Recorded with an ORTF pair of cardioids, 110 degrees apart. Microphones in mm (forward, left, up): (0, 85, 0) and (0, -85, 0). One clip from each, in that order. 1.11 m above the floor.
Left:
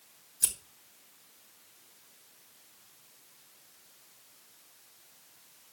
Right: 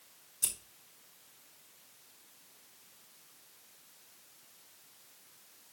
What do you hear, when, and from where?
0.4 s scissors: 15° left, 2.5 m